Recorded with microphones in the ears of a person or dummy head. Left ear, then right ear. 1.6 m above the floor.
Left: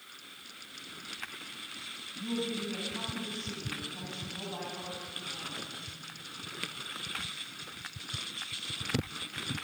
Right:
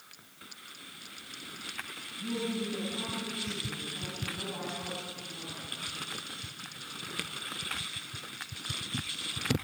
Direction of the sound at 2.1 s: 85° left.